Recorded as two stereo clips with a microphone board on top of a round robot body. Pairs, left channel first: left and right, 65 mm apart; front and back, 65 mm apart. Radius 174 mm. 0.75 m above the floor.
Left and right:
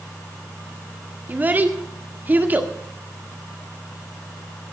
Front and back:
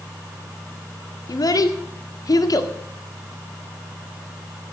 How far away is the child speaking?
About 1.8 m.